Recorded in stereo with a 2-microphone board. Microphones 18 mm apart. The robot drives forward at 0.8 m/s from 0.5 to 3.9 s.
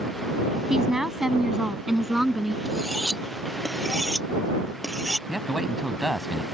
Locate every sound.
0.7 s a woman speaking: 30° right (ahead or behind); by 2.5 s 15° right (ahead or behind)
2.6 s cutlery clinking: 5° left (ahead or behind)
5.3 s a man speaking: 10° right (ahead or behind)